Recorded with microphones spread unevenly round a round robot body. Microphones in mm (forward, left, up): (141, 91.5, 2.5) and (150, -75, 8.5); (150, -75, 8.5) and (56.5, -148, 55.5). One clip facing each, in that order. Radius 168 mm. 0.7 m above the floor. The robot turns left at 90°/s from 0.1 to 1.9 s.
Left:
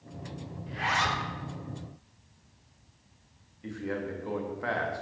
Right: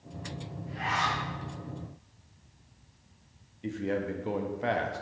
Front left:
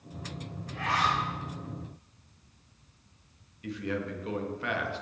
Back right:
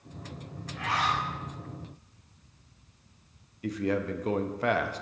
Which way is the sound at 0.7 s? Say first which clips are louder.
Left 1 dB, front left 1 dB; 135° left.